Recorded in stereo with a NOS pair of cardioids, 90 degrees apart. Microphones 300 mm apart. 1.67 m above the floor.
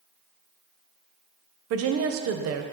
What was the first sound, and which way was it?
A woman speaking, 55° right.